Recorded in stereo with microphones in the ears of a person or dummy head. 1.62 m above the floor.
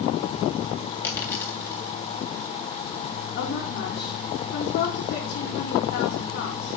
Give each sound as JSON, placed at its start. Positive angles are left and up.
{"t": 1.0, "sound": "a dropped coin", "side_deg": 15, "distance_m": 2.5}
{"t": 3.4, "sound": "a woman speaking", "side_deg": 45, "distance_m": 3.0}